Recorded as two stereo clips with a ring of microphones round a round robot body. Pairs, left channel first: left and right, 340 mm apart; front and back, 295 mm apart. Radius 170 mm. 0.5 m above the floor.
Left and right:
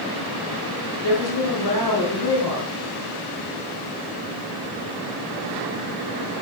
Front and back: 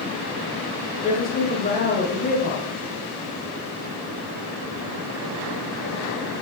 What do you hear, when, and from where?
1.0 s a woman speaking: 60° left, 3 m